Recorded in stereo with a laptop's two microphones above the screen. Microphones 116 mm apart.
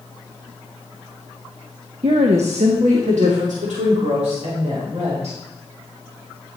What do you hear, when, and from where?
2.0 s a woman speaking: 55° right (ahead or behind), 0.8 m; by 5.4 s 80° right, 4 m